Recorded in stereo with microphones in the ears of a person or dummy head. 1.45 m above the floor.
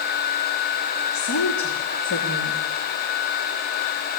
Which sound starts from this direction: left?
A woman speaking, at 1.1 s.